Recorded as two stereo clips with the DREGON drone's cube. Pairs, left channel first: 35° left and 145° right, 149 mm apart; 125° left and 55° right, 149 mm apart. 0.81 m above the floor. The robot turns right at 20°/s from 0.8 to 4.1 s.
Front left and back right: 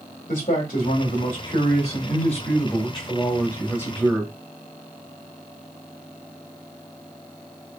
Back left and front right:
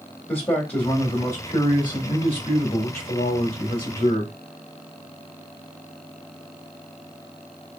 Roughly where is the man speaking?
Ahead left.